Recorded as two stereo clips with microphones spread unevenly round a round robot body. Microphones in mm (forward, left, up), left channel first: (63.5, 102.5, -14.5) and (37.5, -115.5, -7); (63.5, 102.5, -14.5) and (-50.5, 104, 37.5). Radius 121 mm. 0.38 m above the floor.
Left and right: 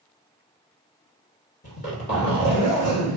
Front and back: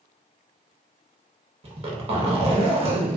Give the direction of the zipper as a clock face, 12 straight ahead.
7 o'clock.